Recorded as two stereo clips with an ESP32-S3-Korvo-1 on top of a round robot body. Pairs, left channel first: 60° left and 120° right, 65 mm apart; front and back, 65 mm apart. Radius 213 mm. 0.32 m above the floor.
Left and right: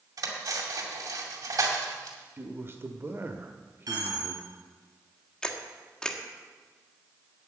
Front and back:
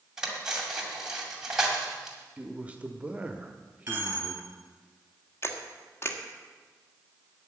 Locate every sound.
0.2 s cutlery clinking: 100° right, 2.5 m
2.4 s a man speaking: 120° right, 1.3 m
3.9 s a dropped coin: 120° right, 4 m
5.4 s a camera shutter: 10° right, 1.7 m